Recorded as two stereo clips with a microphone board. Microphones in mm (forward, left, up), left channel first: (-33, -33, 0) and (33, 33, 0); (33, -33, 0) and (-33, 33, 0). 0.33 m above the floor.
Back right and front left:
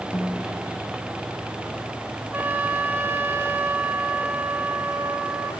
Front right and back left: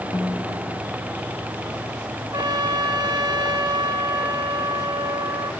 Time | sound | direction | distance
0.1 | a snare drum | 65° right | 2.5 m
2.3 | a trumpet | 110° left | 1.3 m